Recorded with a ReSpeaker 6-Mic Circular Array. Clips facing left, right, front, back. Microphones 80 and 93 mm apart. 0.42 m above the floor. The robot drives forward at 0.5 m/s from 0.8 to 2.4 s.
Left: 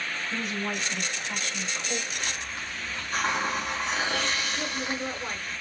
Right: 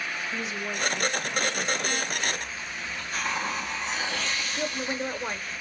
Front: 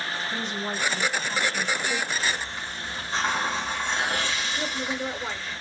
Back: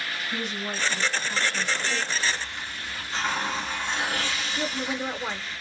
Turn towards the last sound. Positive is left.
turn(degrees=-145)